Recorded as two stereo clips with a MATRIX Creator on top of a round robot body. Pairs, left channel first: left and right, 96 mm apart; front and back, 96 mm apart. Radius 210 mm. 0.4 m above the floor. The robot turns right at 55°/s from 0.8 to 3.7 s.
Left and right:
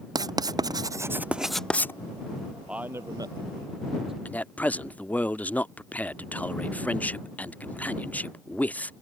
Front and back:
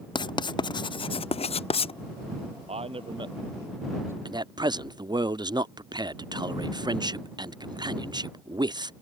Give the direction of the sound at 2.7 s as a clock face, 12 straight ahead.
6 o'clock.